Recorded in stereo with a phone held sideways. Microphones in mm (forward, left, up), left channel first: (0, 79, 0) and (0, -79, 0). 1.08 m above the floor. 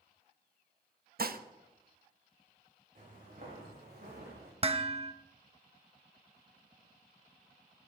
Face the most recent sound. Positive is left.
turn(degrees=-35)  # may be behind; listen again after turning